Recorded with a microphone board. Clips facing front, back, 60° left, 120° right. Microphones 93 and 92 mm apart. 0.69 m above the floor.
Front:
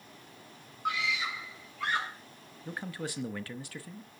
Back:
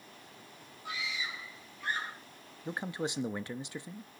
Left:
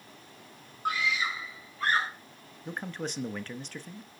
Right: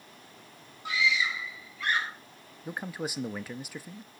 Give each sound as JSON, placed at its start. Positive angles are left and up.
{"t": 0.8, "sound": "a scream", "azimuth_deg": 20, "distance_m": 3.5}
{"t": 2.6, "sound": "a man speaking", "azimuth_deg": 170, "distance_m": 0.8}